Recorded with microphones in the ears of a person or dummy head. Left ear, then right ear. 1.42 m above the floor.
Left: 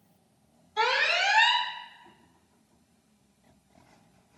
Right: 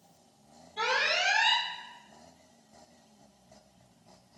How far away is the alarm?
About 3.5 m.